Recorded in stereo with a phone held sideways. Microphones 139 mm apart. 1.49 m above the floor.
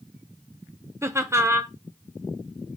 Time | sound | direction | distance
1.0 | laughter | 20° right (ahead or behind) | 0.8 m